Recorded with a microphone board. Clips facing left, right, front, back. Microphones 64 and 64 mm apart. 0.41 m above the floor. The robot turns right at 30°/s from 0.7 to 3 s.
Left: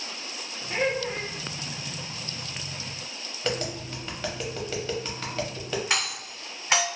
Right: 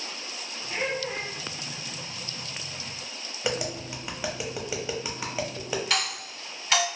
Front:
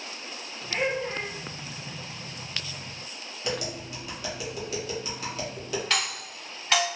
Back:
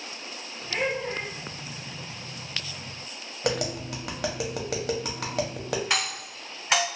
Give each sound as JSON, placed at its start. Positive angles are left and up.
{"t": 0.7, "sound": "laughter", "azimuth_deg": 85, "distance_m": 0.8}
{"t": 3.4, "sound": "tapping", "azimuth_deg": -165, "distance_m": 0.6}
{"t": 5.9, "sound": "a doorbell", "azimuth_deg": 120, "distance_m": 1.8}